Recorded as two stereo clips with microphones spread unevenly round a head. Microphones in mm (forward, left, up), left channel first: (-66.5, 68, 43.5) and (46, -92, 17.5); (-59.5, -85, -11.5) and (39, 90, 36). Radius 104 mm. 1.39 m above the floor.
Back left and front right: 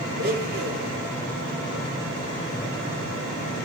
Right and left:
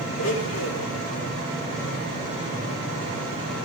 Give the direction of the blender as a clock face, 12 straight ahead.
3 o'clock.